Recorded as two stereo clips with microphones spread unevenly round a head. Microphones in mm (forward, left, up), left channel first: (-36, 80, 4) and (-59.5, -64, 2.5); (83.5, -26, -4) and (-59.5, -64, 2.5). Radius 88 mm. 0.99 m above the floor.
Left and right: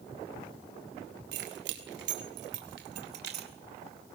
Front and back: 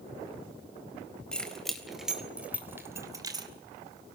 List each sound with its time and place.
1.3 s keys jangling: 70° right, 4 m; by 3.5 s 105° right, 2.5 m